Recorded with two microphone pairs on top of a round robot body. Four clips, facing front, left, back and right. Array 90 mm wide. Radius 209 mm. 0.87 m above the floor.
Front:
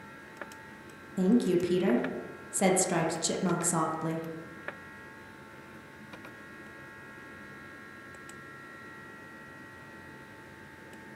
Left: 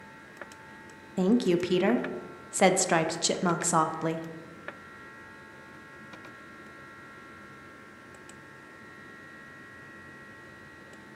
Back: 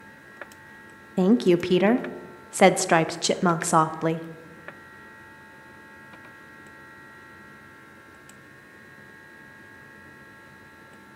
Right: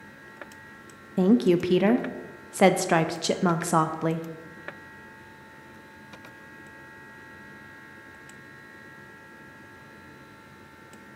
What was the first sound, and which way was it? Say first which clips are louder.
A woman speaking: right 4 dB, back 6 dB; 170° right.